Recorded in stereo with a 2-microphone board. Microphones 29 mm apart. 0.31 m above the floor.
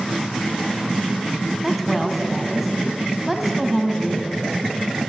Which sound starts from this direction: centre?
A woman speaking, at 1.6 s.